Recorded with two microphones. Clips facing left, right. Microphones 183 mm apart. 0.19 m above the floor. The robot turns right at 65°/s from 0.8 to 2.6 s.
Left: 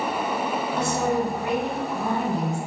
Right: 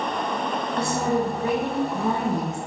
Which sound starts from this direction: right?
A woman speaking, at 0.8 s.